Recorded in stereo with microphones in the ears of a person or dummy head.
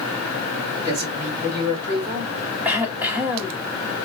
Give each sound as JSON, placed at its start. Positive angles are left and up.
{"t": 0.8, "sound": "a man speaking", "side_deg": -50, "distance_m": 3.0}
{"t": 2.6, "sound": "throat clearing", "side_deg": -5, "distance_m": 1.1}